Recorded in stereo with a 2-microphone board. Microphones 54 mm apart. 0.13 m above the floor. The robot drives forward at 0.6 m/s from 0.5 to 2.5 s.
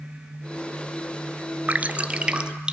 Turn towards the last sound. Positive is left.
turn(degrees=-20)  # may be behind; listen again after turning